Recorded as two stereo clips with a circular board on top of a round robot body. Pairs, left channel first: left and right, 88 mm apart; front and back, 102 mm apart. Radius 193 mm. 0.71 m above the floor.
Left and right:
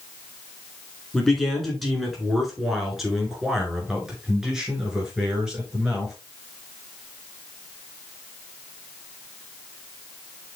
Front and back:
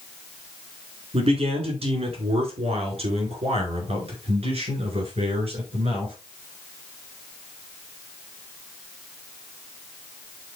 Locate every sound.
1.1 s a man speaking: straight behind, 3.5 m; by 6.1 s 165° right, 5.5 m